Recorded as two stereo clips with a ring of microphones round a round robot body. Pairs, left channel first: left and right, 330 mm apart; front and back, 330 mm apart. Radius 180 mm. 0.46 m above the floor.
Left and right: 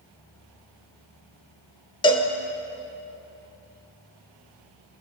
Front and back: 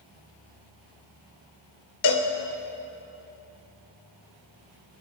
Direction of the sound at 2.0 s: 15° left.